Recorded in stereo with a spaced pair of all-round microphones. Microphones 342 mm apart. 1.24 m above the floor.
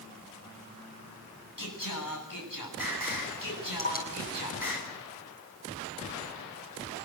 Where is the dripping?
25° left (ahead or behind), 8 m.